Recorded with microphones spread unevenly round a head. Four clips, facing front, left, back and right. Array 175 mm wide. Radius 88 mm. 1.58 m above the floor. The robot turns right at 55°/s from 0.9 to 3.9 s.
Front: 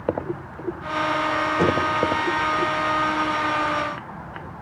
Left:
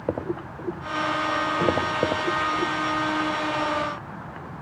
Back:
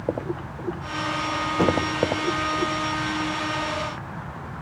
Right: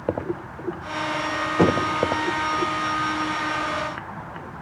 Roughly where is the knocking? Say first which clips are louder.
Right 6 dB, even; right.